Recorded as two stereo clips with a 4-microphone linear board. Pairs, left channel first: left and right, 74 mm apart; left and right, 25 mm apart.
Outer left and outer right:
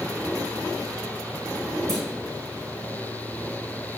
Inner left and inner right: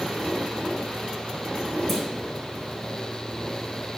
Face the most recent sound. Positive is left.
turn(degrees=5)  # may be behind; listen again after turning